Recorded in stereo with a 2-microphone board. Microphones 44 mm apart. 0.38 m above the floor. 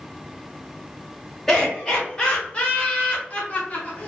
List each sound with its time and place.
1.5 s laughter: 10° left (ahead or behind), 1.2 m; by 4.1 s 35° left (ahead or behind), 1.3 m